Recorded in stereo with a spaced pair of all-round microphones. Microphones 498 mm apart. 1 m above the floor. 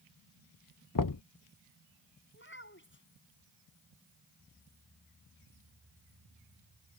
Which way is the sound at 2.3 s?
25° left (ahead or behind).